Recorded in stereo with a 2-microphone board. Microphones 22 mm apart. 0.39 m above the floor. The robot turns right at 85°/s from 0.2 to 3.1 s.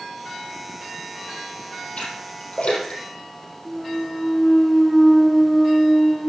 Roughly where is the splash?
Left.